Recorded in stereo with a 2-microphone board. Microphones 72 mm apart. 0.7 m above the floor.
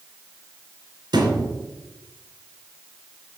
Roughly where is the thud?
Right.